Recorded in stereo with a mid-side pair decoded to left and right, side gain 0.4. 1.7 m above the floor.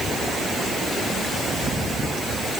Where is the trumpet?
No trumpet in this recording.